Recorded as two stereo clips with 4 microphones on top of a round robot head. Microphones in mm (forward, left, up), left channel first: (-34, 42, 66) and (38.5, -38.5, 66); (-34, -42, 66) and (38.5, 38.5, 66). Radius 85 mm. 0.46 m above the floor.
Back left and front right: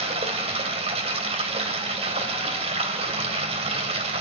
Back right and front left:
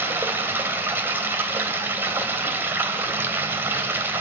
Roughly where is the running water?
Ahead.